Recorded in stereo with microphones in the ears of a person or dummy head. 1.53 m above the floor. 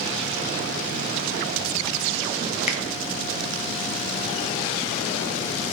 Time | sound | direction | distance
2.7 | a finger snap | 50° left (ahead or behind) | 0.5 m